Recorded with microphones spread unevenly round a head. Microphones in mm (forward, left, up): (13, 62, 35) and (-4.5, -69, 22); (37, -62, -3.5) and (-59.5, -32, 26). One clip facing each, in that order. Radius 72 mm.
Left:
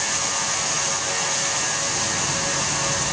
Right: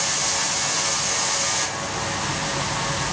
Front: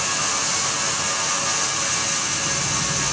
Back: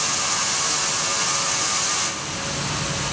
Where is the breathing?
No breathing in this recording.